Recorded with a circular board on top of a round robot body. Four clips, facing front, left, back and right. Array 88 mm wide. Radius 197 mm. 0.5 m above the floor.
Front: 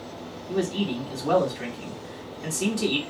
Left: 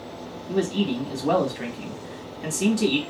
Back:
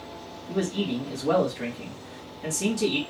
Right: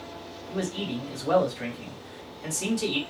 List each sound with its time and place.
0.5 s a man speaking: 80° left, 1.7 m